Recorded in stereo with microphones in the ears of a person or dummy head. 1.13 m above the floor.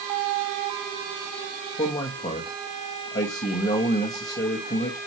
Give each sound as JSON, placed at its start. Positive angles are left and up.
{"t": 1.8, "sound": "a man speaking", "side_deg": 35, "distance_m": 1.4}